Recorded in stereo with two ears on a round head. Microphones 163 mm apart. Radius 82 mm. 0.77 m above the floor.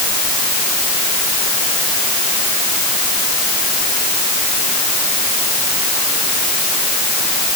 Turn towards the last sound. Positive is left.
No sound to turn to.